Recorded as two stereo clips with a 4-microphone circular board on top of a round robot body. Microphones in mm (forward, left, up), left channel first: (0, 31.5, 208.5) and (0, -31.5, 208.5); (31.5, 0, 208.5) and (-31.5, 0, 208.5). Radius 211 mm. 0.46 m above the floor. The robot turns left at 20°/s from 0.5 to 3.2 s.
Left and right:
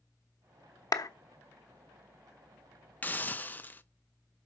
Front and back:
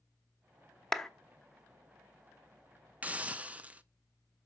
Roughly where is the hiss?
Behind left.